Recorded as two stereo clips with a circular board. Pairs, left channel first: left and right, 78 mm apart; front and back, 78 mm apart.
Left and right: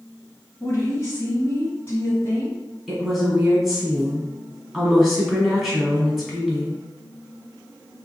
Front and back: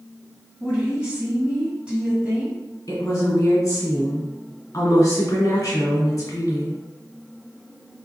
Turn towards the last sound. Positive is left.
turn(degrees=-5)